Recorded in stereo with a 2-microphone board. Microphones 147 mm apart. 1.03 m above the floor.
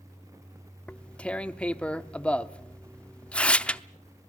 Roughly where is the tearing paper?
Centre.